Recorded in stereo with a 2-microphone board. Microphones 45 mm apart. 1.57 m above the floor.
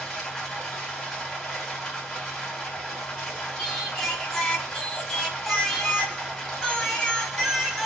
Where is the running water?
10° left (ahead or behind), 1.5 m.